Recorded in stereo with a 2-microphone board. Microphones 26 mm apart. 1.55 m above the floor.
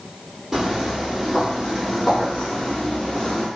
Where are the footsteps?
10° right (ahead or behind), 1.6 m; by 3.5 s 40° left (ahead or behind), 2.0 m.